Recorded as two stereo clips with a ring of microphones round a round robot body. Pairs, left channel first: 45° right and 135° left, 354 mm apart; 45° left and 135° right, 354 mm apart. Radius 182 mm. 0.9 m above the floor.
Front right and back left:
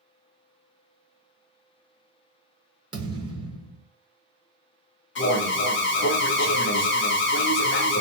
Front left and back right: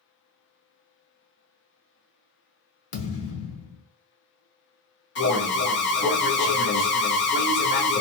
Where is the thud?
60° left, 0.7 m.